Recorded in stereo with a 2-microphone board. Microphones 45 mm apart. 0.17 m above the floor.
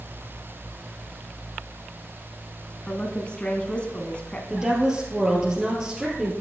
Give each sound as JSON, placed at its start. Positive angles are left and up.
{"t": 2.9, "sound": "a woman speaking", "side_deg": 25, "distance_m": 1.3}
{"t": 4.5, "sound": "a woman speaking", "side_deg": -10, "distance_m": 3.0}